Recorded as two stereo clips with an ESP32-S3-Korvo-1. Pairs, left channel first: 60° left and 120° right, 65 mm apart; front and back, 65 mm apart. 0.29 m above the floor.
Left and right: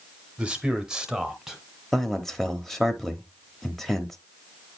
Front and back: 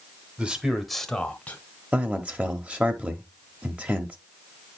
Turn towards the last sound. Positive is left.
turn(degrees=140)